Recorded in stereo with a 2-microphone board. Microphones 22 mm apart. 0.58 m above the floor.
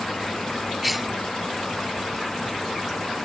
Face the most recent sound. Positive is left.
turn(degrees=0)  # may be behind; listen again after turning